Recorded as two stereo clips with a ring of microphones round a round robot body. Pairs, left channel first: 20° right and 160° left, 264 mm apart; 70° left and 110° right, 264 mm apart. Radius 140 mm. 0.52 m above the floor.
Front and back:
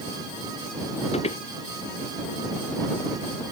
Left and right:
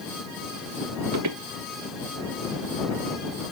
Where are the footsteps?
90° right.